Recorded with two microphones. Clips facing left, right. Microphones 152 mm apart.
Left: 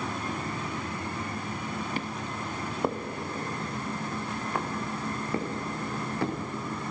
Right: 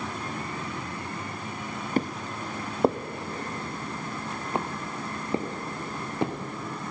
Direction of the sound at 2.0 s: 45° right (ahead or behind).